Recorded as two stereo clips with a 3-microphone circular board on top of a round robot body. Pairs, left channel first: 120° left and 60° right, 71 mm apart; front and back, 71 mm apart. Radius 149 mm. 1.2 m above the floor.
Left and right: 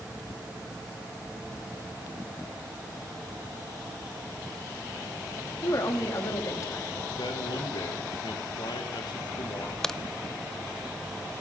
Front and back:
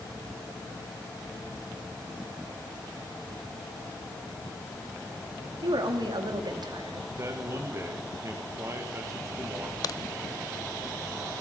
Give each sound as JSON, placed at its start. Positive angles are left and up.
{"t": 5.6, "sound": "a woman speaking", "azimuth_deg": 165, "distance_m": 3.0}
{"t": 7.2, "sound": "a man speaking", "azimuth_deg": 130, "distance_m": 2.0}
{"t": 9.8, "sound": "a crack", "azimuth_deg": 35, "distance_m": 0.5}